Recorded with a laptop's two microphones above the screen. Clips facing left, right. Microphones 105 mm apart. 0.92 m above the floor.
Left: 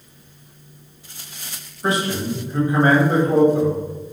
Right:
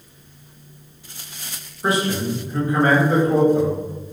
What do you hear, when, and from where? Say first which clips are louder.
1.8 s a man speaking: right 1 dB; 5° right (ahead or behind), 1.0 m; by 3.8 s 50° left (ahead or behind), 1.2 m